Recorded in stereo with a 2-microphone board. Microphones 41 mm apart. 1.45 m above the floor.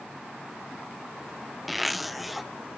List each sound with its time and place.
1.7 s a zipper: 5° right (ahead or behind), 0.5 m